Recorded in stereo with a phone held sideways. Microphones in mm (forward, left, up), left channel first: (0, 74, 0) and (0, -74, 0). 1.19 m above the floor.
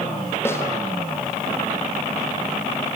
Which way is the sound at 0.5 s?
15° left (ahead or behind).